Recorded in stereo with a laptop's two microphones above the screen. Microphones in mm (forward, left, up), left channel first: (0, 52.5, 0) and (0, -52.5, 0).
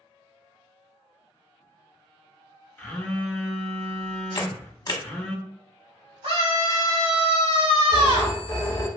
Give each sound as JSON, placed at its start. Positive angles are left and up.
{"t": 2.8, "sound": "a phone buzzing", "side_deg": 15, "distance_m": 0.8}
{"t": 4.3, "sound": "a camera shutter", "side_deg": 45, "distance_m": 0.8}
{"t": 6.2, "sound": "a scream", "side_deg": -55, "distance_m": 1.5}
{"t": 7.9, "sound": "a phone ringing", "side_deg": 35, "distance_m": 1.1}